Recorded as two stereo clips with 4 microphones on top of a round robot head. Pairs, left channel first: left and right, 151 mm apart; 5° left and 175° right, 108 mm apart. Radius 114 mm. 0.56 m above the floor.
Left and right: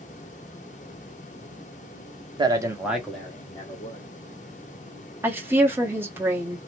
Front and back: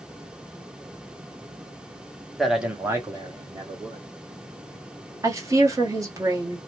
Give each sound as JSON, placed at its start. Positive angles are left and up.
{"t": 2.4, "sound": "a man speaking", "azimuth_deg": -85, "distance_m": 1.0}
{"t": 5.2, "sound": "a woman speaking", "azimuth_deg": -155, "distance_m": 1.2}